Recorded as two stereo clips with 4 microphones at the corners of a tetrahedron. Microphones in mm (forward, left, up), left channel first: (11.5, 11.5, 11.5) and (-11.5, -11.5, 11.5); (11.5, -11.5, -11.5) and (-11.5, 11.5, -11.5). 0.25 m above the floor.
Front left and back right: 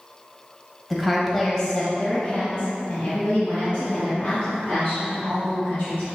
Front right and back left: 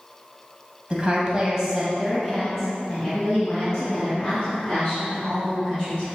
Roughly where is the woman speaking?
Behind left.